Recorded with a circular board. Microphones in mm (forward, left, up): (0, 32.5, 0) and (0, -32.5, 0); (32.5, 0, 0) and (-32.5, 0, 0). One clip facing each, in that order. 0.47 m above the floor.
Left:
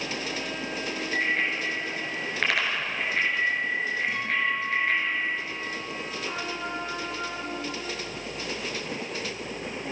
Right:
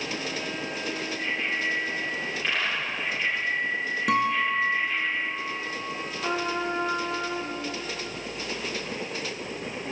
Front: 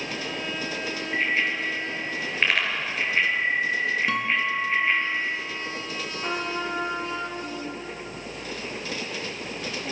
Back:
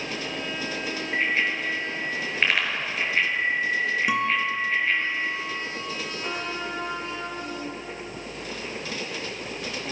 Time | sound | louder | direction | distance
1.1 | a bicycle bell | left 5 dB, even | 100° left | 5.5 m
4.1 | a guitar | right 8 dB, back 1 dB | 100° right | 2.5 m
6.2 | a trumpet | right 8 dB, front 4 dB | 70° right | 6 m